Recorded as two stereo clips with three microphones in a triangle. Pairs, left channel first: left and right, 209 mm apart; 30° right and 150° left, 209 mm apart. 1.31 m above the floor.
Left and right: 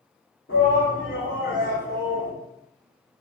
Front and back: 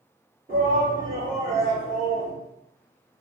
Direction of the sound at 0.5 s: 110° left.